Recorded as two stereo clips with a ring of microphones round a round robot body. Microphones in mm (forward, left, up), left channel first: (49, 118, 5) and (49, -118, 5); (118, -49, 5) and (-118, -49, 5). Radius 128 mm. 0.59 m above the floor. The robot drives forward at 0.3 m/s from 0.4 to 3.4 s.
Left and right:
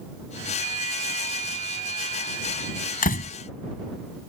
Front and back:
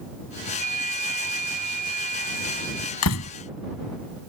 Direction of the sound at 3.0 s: 35° left.